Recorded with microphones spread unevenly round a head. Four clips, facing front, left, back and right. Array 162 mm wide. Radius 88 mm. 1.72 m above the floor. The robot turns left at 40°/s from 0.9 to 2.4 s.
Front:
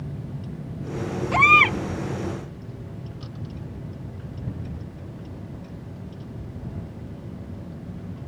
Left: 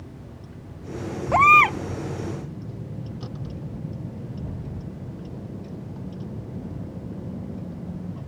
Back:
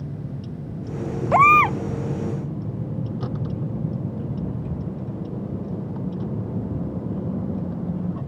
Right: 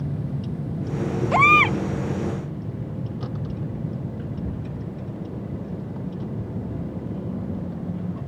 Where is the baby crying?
Straight behind; by 1.8 s 160° left.